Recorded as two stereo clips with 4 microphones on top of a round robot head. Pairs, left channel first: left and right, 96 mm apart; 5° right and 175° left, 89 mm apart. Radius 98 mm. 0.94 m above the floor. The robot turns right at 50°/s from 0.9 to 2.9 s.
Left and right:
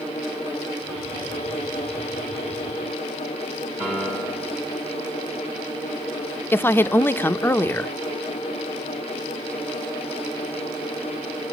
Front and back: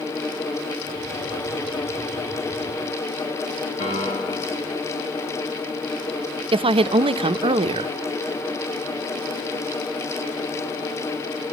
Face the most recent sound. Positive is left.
turn(degrees=160)